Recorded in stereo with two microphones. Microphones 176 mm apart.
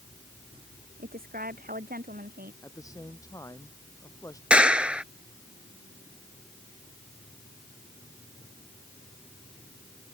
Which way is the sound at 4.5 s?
5° right (ahead or behind).